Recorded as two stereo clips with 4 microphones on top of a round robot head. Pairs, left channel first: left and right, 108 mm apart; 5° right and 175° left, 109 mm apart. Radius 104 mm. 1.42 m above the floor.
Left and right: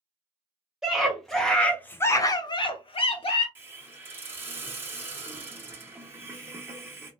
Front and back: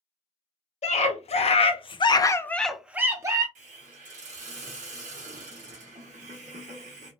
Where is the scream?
5° right, 1.0 m; by 3.5 s 120° left, 0.7 m.